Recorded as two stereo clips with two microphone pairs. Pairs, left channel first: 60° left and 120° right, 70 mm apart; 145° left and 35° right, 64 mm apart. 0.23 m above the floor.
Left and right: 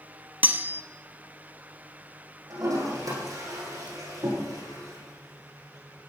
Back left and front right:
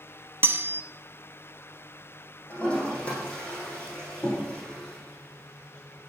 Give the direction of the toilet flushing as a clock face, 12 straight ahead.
5 o'clock.